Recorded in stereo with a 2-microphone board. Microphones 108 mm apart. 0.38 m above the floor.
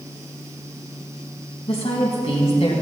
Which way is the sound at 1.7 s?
70° left (ahead or behind).